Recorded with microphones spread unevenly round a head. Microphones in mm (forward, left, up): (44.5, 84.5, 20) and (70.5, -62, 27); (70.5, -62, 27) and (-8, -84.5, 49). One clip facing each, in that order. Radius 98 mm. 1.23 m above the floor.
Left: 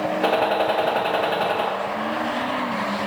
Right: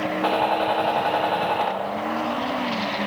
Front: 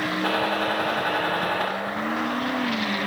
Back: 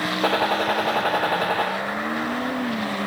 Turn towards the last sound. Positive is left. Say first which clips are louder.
# left 1 dB, back 4 dB
turn(degrees=160)